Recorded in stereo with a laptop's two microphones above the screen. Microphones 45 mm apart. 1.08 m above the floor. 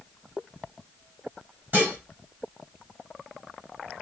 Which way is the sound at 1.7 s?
35° right (ahead or behind).